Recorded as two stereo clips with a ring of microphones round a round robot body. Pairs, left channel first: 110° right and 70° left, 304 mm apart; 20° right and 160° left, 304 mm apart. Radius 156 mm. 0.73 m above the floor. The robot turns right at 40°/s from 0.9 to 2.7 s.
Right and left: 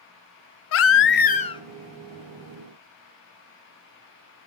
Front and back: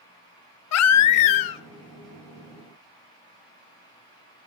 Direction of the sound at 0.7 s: 65° right.